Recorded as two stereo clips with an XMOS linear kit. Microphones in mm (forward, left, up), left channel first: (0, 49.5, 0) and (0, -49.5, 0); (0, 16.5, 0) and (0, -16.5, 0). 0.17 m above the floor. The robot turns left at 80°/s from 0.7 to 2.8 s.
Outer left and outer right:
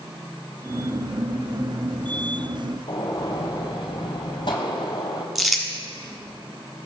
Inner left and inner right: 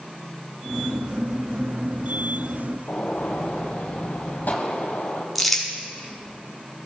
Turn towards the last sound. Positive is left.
turn(degrees=0)  # may be behind; listen again after turning